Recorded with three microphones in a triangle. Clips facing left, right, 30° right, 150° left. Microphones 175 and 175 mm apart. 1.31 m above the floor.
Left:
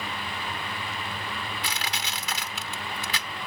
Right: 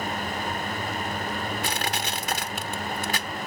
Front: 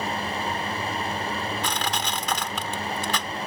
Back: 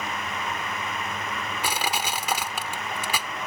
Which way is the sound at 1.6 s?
130° right.